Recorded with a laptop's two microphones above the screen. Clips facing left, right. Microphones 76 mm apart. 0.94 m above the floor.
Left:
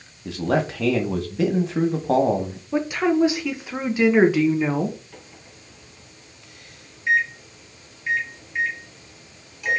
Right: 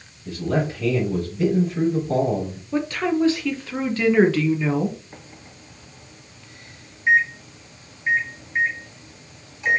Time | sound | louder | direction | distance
0.2 | a man speaking | left 1 dB | 75° left (ahead or behind) | 1.3 m
2.7 | a woman speaking | left 2 dB | 15° left (ahead or behind) | 0.6 m
5.1 | a microwave | right 2 dB | 25° right (ahead or behind) | 1.1 m